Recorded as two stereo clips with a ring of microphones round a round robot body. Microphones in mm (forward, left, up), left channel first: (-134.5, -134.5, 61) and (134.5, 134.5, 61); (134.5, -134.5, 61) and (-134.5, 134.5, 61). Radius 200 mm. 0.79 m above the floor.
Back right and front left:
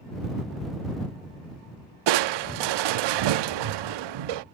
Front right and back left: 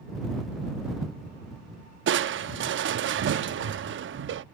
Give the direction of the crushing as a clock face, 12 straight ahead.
10 o'clock.